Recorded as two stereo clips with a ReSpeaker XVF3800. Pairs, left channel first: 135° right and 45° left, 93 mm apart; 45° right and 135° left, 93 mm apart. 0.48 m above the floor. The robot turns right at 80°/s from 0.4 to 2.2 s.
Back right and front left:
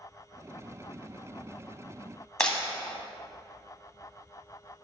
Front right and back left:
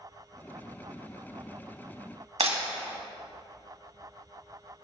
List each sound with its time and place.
2.4 s breaking glass: 145° left, 1.5 m